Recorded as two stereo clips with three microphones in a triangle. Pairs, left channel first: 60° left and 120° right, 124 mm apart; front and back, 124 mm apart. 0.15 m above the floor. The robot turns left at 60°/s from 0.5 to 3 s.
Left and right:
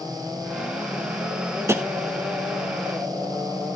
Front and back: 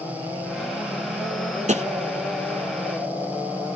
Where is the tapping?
175° left, 0.8 m; by 1.8 s 165° left, 0.8 m.